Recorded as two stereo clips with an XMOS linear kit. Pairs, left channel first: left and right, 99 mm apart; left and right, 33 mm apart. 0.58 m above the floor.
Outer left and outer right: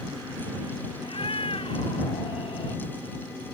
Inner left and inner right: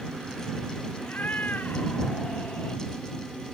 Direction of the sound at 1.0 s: 70° left (ahead or behind).